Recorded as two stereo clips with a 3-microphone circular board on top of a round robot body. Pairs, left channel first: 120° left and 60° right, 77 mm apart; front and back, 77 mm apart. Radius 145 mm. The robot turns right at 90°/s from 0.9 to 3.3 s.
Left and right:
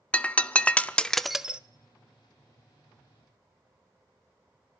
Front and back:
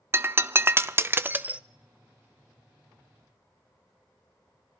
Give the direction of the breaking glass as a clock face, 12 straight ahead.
6 o'clock.